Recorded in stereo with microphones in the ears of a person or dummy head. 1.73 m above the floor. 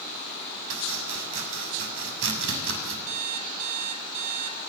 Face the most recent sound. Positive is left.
turn(degrees=-75)  # may be behind; listen again after turning